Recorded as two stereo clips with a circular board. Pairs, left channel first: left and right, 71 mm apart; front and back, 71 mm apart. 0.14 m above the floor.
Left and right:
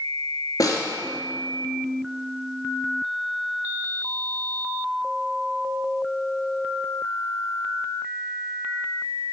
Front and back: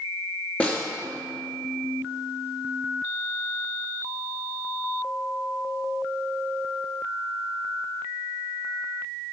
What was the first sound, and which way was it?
A snare drum, 65° left.